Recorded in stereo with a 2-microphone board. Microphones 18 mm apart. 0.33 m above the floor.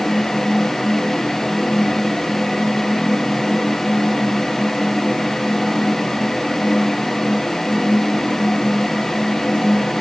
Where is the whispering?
No whispering in this recording.